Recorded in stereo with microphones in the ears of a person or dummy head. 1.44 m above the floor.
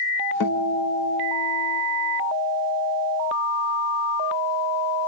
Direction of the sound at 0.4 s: 70° left (ahead or behind).